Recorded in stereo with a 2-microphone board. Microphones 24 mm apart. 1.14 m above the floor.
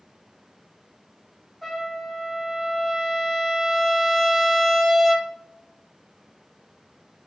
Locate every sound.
1.6 s a trumpet: centre (ahead or behind), 0.7 m